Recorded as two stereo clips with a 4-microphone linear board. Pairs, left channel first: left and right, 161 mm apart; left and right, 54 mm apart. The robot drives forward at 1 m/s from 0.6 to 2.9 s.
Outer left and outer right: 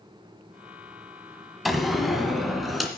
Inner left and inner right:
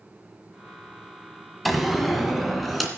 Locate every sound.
1.6 s a door slam: centre (ahead or behind), 1.4 m